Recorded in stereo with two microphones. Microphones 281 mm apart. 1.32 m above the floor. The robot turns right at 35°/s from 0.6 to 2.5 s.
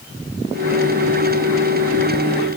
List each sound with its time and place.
Only background noise.